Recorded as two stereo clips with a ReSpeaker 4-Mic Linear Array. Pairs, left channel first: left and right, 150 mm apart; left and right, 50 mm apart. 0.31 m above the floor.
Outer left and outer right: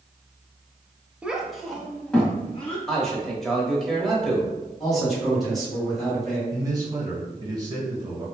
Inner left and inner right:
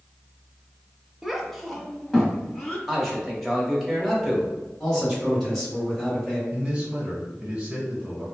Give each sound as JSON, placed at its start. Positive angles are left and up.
{"t": 1.2, "sound": "a child speaking", "side_deg": -5, "distance_m": 0.5}
{"t": 2.9, "sound": "a man speaking", "side_deg": 5, "distance_m": 1.0}
{"t": 4.8, "sound": "a man speaking", "side_deg": 0, "distance_m": 1.9}
{"t": 6.5, "sound": "a man speaking", "side_deg": -25, "distance_m": 1.3}